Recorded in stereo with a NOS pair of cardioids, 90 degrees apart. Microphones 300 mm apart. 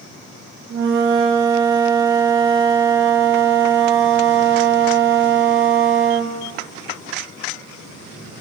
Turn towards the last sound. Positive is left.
turn(degrees=-40)